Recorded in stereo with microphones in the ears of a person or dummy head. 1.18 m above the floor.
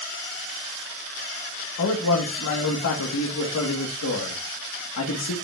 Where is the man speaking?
90° left, 1.4 m.